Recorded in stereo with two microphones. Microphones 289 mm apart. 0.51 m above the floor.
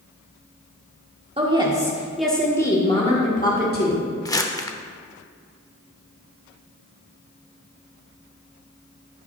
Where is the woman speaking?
20° right (ahead or behind), 1.4 m; by 4.1 s 40° left (ahead or behind), 1.6 m.